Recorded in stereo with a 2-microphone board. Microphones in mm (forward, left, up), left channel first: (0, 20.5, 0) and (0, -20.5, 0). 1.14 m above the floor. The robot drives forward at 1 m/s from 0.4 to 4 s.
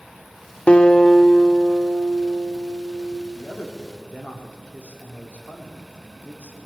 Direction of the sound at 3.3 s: 50° left (ahead or behind).